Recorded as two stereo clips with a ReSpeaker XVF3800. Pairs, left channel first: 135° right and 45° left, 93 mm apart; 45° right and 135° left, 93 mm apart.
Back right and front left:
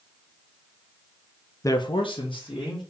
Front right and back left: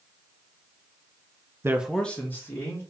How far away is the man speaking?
About 0.5 m.